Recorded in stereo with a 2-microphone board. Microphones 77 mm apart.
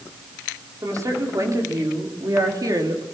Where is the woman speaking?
45° right (ahead or behind), 4.5 m; by 3.0 s 55° right (ahead or behind), 3.5 m.